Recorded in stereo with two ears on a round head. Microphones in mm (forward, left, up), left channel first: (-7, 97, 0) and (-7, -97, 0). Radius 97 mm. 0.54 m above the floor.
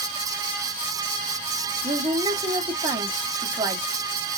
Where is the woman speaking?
15° right (ahead or behind), 1.3 m.